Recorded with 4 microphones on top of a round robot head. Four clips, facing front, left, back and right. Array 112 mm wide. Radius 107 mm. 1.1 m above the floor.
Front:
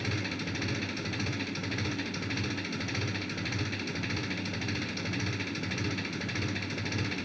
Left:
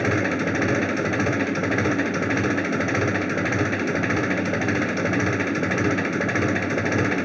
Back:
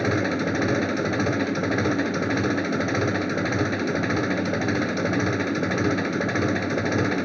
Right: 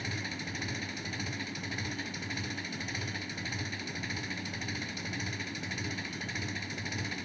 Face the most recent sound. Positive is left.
turn(degrees=130)